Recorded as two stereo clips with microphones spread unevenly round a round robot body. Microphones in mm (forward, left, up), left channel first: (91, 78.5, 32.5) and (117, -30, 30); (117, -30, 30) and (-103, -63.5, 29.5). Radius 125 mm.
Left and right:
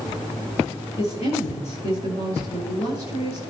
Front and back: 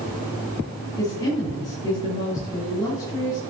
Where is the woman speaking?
85° left, 6 m.